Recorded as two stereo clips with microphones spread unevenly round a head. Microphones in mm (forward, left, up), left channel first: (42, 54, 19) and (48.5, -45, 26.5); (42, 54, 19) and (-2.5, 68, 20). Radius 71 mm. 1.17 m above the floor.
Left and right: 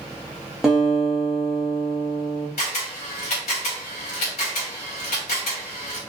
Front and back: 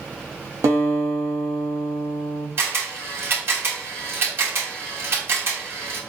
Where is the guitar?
175° right, 0.7 m.